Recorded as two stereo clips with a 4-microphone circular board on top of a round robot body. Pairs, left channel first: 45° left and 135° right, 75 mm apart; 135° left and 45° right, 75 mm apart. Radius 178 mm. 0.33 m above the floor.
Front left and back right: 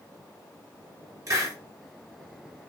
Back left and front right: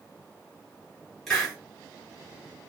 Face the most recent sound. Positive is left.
turn(degrees=-145)